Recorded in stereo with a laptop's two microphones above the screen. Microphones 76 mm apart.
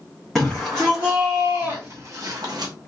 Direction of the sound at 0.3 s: Centre (ahead or behind).